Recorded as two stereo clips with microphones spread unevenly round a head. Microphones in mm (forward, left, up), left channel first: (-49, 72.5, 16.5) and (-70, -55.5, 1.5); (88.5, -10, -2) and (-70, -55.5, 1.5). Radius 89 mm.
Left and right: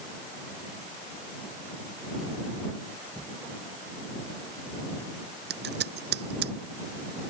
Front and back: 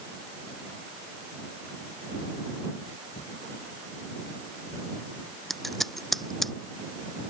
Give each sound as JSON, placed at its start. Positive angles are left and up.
{"t": 3.1, "sound": "a thud", "azimuth_deg": -35}
{"t": 5.5, "sound": "scissors", "azimuth_deg": -75}